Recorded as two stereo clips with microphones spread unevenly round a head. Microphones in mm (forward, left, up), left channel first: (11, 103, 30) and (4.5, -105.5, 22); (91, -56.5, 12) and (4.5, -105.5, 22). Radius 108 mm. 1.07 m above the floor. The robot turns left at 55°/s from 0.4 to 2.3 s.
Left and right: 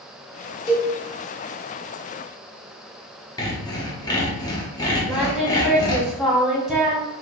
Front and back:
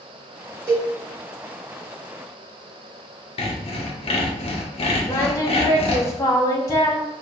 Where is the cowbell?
145° left, 1.1 m; by 0.9 s 135° left, 1.1 m.